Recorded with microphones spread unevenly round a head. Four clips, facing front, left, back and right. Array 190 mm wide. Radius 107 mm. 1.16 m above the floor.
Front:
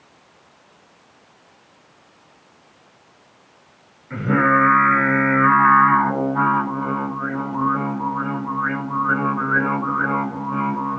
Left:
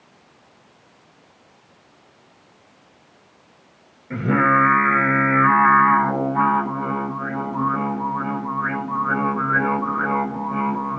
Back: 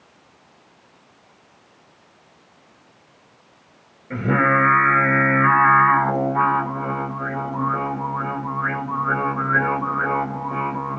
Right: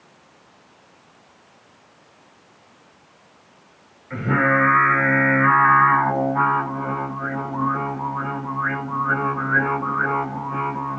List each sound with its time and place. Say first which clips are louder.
4.1 s singing: left 2 dB, front 1 dB; 140° left, 2.5 m